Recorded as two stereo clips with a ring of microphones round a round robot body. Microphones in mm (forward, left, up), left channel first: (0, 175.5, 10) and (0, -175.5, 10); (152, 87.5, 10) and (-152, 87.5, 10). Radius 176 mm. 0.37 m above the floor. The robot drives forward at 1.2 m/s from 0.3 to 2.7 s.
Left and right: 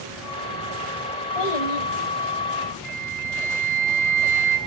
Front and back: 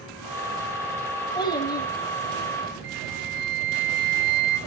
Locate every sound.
1.4 s a child speaking: 75° left, 9 m; by 1.9 s 80° left, 9 m
2.8 s a flute: 160° right, 3 m